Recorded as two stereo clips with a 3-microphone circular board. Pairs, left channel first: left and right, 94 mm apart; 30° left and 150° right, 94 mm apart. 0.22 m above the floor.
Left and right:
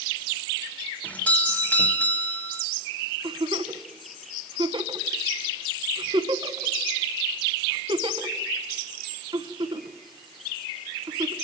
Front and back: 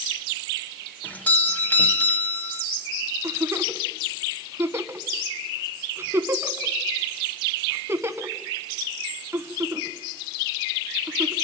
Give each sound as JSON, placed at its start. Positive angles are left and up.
{"t": 1.0, "sound": "a doorbell", "azimuth_deg": 60, "distance_m": 1.5}
{"t": 3.2, "sound": "a giggle", "azimuth_deg": -90, "distance_m": 1.3}